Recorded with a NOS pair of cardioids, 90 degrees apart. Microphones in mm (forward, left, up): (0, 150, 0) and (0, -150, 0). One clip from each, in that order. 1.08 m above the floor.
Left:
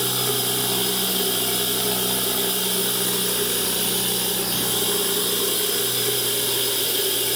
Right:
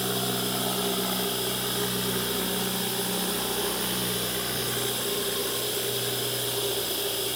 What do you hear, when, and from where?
0.0 s running water: 65° left, 10 m